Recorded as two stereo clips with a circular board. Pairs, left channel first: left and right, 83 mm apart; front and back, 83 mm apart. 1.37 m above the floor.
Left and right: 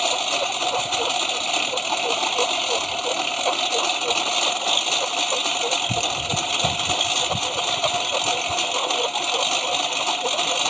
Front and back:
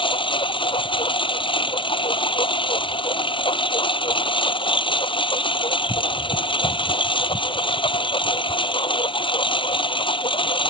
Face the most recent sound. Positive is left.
turn(degrees=0)